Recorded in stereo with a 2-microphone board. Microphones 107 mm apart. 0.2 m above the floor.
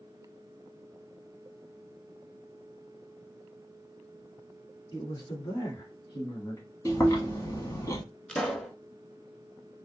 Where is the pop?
10° left (ahead or behind), 0.6 m.